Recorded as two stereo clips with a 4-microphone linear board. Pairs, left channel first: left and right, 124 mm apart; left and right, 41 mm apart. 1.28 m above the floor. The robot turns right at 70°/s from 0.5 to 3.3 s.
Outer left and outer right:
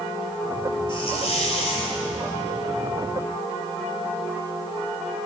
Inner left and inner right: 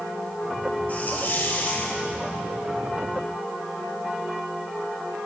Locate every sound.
0.9 s a hiss: 50° left, 1.6 m; by 2.0 s 130° left, 1.6 m